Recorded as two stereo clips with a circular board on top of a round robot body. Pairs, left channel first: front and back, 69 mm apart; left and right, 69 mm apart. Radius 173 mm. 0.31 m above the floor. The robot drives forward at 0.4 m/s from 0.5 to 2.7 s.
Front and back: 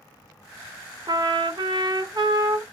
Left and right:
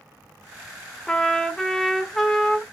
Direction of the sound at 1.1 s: 170° left.